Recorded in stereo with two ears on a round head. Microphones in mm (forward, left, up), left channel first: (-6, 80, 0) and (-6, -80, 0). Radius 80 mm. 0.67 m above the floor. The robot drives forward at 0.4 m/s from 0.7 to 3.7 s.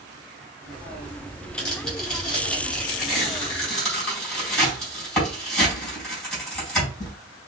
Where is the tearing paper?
5° left (ahead or behind), 3 m.